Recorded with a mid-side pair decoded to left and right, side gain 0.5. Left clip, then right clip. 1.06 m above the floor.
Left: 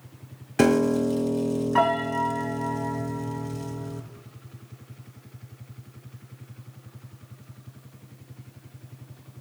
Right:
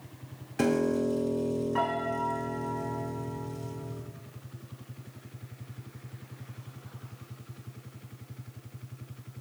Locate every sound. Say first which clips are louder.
0.6 s a piano: left 6 dB; 50° left, 0.9 m